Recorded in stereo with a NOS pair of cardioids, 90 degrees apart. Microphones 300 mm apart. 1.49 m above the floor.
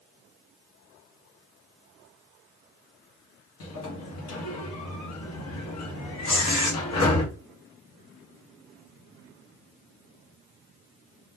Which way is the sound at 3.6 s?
55° left.